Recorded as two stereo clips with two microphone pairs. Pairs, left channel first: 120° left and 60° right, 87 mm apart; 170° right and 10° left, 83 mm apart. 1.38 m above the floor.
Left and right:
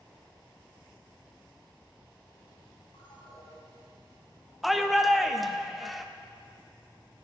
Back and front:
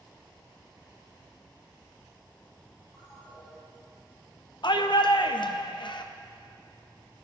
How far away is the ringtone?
About 5 m.